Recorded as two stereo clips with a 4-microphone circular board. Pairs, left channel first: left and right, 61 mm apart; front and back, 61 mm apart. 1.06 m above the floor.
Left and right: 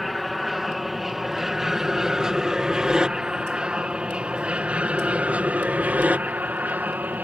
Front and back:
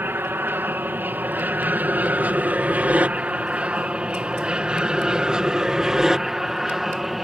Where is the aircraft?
Straight behind; by 7.2 s 95° right.